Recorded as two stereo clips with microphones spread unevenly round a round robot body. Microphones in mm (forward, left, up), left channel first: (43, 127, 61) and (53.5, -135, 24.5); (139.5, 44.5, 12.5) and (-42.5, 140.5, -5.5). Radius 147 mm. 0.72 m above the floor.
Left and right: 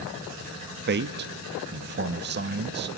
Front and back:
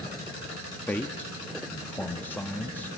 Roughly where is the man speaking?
Behind right.